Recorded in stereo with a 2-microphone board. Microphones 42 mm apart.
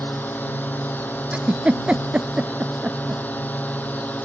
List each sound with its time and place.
0.0 s a drone: 45° left (ahead or behind); by 4.2 s 40° left (ahead or behind)
1.3 s a giggle: 25° right (ahead or behind)